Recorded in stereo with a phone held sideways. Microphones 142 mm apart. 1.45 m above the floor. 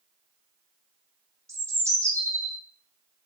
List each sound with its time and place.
1.5 s a bird: 20° right (ahead or behind), 2.5 m